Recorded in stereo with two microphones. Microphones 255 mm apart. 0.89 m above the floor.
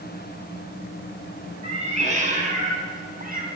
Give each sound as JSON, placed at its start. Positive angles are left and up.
{"t": 1.6, "sound": "a cat meowing", "side_deg": -25, "distance_m": 3.0}